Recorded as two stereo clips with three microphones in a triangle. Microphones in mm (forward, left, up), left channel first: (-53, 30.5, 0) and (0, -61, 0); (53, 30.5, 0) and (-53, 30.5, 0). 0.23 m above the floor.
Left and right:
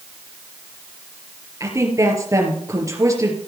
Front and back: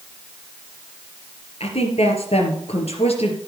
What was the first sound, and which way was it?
A woman speaking, straight ahead.